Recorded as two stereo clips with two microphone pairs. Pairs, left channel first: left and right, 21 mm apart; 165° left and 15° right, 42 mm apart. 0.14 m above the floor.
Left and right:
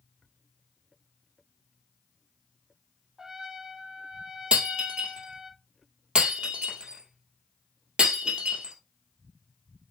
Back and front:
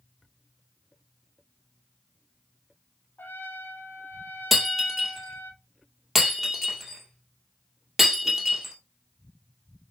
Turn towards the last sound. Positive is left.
turn(degrees=-105)